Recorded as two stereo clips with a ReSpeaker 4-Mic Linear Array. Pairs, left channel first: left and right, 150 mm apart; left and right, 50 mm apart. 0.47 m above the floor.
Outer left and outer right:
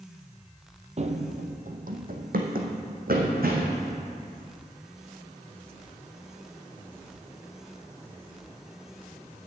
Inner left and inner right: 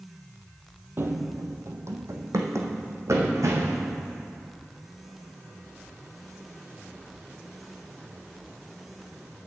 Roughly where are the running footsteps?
Right.